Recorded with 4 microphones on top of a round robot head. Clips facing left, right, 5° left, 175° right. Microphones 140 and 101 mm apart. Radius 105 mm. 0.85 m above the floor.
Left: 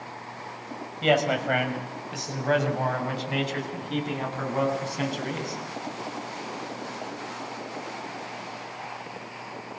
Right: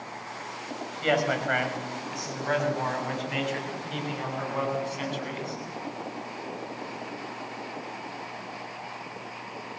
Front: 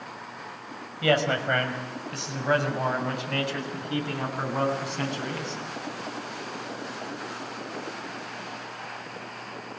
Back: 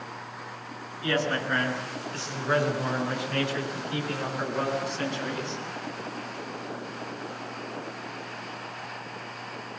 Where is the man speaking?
25° left, 6 m; by 5.6 s 40° left, 10 m.